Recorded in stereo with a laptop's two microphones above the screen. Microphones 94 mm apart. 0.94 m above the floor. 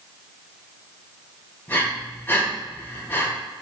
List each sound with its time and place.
1.7 s breathing: 25° left (ahead or behind), 3 m